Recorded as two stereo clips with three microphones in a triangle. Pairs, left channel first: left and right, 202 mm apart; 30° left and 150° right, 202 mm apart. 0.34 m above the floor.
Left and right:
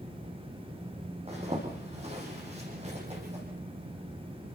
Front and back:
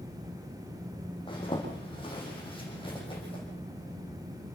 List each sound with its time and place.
1.3 s a zipper: 35° right, 9.5 m